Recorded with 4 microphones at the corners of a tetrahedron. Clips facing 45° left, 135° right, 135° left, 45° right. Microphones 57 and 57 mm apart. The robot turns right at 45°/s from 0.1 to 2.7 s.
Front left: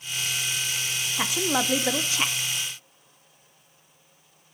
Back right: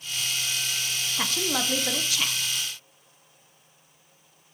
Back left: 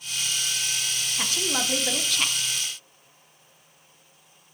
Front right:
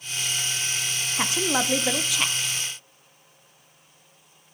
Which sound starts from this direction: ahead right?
A woman speaking, at 1.2 s.